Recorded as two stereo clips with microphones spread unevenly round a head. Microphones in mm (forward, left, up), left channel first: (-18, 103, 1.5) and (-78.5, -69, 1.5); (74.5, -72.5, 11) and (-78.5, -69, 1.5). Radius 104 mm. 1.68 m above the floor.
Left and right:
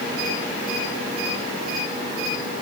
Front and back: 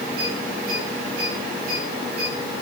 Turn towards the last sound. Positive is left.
No sound to turn to.